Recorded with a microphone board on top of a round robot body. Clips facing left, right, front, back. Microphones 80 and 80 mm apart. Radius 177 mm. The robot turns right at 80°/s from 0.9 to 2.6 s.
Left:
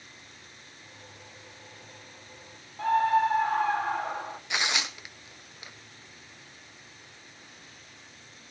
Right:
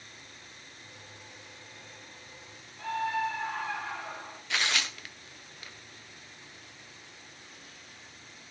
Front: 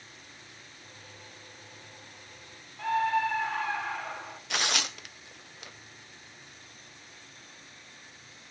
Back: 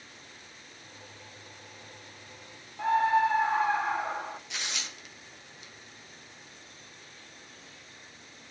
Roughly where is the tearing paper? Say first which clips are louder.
Even, front 7 dB; ahead.